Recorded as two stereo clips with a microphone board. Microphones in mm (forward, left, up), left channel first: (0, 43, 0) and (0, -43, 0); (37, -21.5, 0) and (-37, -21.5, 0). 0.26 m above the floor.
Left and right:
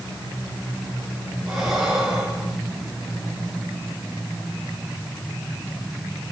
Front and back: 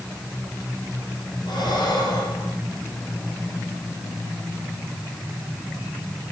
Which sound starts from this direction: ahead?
Breathing, at 1.5 s.